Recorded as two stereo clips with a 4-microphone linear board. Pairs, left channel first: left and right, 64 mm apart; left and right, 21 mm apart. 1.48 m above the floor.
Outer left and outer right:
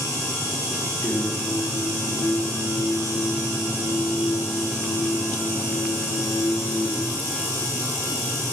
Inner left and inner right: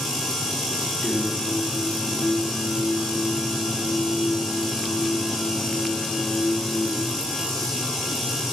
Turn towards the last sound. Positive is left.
turn(degrees=65)  # may be behind; listen again after turning